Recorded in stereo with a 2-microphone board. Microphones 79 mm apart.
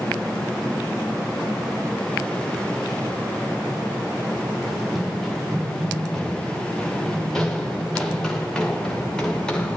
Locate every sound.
4.7 s running footsteps: 5° right (ahead or behind), 6.5 m; by 9.8 s 10° left (ahead or behind), 8.5 m